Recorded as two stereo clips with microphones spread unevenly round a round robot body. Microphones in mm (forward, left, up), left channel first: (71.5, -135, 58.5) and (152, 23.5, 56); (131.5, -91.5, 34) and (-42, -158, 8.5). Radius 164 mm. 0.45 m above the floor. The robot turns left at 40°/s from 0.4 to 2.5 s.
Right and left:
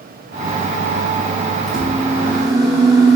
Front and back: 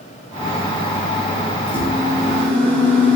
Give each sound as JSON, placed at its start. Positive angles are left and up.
{"t": 1.7, "sound": "a microwave", "azimuth_deg": 150, "distance_m": 0.6}